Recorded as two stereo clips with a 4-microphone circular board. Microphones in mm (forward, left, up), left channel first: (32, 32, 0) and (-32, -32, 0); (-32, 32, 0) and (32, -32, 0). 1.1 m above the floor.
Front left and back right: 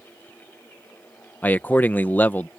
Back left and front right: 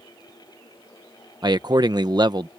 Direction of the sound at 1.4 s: 20° right.